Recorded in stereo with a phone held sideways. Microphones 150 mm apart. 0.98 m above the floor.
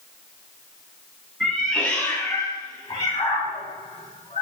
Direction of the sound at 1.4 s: Centre (ahead or behind).